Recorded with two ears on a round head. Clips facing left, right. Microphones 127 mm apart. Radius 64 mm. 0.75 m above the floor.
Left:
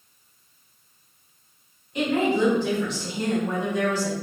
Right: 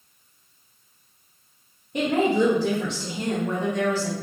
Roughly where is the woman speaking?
Right.